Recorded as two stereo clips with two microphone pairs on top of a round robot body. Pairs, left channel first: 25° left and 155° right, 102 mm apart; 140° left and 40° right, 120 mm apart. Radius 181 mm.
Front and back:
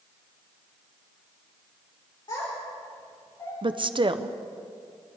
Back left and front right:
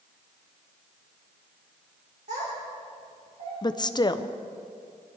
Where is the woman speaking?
175° right, 0.9 m.